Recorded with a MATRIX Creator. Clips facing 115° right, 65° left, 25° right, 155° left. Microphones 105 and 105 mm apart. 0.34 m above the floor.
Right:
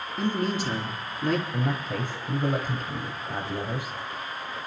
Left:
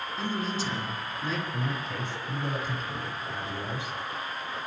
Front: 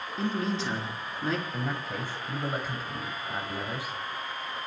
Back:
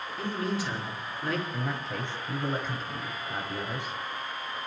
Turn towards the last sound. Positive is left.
turn(degrees=-105)